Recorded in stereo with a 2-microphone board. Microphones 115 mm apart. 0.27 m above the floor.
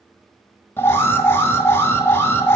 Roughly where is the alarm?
Left.